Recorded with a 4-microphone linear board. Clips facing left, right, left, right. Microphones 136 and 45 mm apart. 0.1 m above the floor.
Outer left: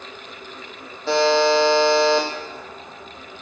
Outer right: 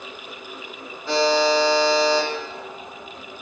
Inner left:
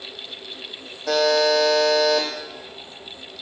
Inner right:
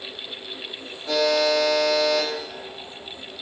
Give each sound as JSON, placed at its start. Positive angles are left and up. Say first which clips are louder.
{"t": 1.1, "sound": "a buzzer", "louder": "outer left 2 dB, inner left 2 dB", "side_deg": 75, "distance_m": 1.0}